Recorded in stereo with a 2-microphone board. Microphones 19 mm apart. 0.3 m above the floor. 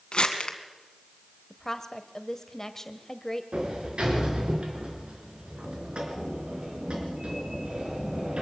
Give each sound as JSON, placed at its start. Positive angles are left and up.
{"t": 0.1, "sound": "crumpling", "side_deg": 65, "distance_m": 2.0}
{"t": 1.5, "sound": "a woman speaking", "side_deg": 25, "distance_m": 1.4}
{"t": 3.5, "sound": "a sliding door", "side_deg": -70, "distance_m": 4.0}